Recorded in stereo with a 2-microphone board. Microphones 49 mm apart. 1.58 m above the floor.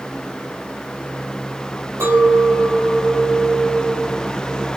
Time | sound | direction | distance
2.0 | a clink | 70° right (ahead or behind) | 2.5 m